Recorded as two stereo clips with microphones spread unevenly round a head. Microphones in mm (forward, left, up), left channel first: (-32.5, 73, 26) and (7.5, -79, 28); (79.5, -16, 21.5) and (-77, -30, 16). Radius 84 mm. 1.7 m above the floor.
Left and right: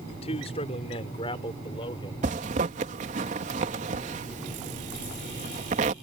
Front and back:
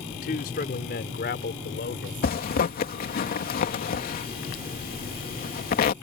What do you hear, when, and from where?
0.1 s a man speaking: 50° left; by 2.1 s 40° left
2.2 s a zipper: 25° right